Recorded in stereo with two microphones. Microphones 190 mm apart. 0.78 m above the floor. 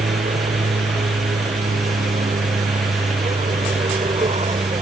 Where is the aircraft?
45° right (ahead or behind); by 4.8 s 30° right (ahead or behind).